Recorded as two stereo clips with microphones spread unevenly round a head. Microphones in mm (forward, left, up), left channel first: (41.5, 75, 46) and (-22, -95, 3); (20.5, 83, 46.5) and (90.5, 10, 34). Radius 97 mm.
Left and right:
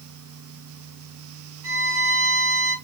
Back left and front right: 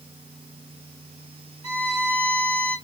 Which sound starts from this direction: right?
A violin, at 1.6 s.